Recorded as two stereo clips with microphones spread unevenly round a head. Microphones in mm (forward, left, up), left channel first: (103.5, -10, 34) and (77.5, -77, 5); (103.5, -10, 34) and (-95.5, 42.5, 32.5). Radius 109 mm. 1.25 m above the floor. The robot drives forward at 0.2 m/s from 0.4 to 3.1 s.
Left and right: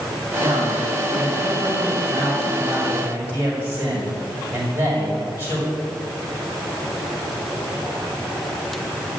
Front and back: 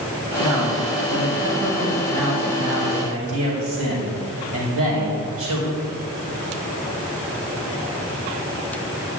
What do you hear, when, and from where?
0.4 s a man speaking: 170° right, 5 m